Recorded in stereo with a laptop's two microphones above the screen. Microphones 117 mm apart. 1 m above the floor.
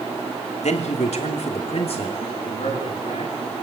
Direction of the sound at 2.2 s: 65° left (ahead or behind).